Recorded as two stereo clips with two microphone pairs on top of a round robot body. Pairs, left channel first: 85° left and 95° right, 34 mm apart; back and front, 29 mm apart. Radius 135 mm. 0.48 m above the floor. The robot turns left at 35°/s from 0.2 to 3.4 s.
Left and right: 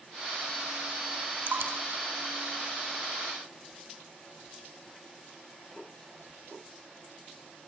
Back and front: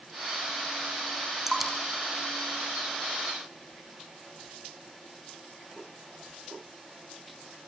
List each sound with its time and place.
1.5 s dripping: 75° right, 4.5 m; by 3.2 s 135° right, 4.5 m